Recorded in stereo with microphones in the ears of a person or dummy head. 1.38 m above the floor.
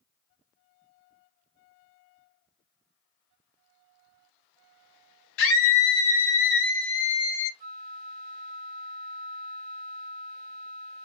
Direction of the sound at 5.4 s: 65° left (ahead or behind).